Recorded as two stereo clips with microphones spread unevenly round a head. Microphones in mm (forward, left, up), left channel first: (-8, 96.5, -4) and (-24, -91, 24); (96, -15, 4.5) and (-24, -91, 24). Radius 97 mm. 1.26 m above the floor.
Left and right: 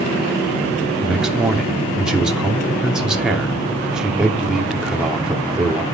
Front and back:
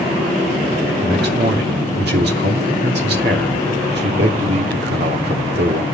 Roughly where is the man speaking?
Behind.